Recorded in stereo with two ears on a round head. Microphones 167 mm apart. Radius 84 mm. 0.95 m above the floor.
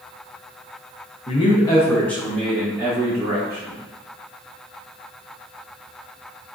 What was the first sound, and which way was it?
A man speaking, 35° left (ahead or behind).